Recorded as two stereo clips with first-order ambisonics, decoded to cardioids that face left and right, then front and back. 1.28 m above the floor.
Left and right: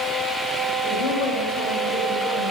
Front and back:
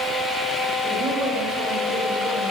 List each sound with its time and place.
0.8 s a woman speaking: 120° left, 6.5 m